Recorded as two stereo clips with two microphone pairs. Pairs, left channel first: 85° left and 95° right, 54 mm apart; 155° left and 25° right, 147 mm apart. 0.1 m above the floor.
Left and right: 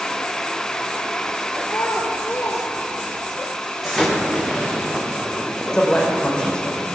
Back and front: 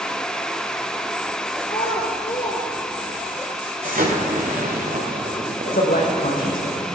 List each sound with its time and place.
1.6 s a child speaking: 115° left, 2 m; by 3.4 s 25° right, 1.2 m
3.8 s an explosion: 5° right, 3 m
5.7 s a man speaking: 160° left, 4.5 m